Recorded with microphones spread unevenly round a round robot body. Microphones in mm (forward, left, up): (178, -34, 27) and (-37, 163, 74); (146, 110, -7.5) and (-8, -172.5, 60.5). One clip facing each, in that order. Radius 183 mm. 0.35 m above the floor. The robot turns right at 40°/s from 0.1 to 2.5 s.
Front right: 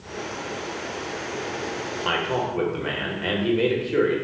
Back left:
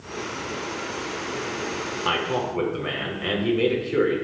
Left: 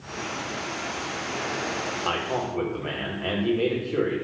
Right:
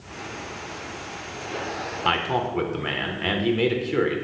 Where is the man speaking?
140° right, 1.1 m; by 4.2 s 120° right, 1.1 m.